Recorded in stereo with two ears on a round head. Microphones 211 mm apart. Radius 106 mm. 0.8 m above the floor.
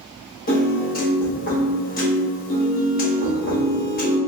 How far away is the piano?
About 1.3 m.